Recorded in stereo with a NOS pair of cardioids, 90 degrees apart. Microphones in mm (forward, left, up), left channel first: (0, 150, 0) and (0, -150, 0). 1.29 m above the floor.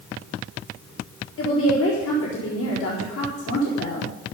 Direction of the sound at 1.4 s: 60° left.